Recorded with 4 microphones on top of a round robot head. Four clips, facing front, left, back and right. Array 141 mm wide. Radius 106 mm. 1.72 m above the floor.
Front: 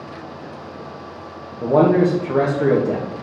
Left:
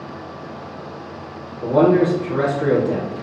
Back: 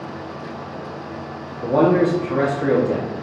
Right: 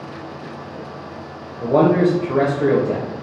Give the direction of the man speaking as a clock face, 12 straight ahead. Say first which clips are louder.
Even, front 1 dB; 1 o'clock.